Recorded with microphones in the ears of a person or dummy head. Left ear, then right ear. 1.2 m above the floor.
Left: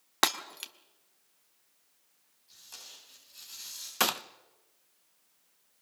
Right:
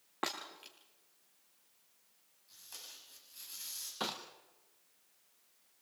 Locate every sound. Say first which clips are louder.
0.2 s breaking glass: left 11 dB; 65° left (ahead or behind), 1.3 m
2.5 s tape being pulled: left 3 dB; 5° right (ahead or behind), 9.5 m
4.0 s a gunshot: left 11 dB; 50° left (ahead or behind), 0.8 m